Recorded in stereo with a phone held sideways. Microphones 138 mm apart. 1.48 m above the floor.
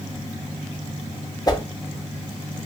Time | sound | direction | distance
1.5 | a whoosh | 30° left (ahead or behind) | 0.6 m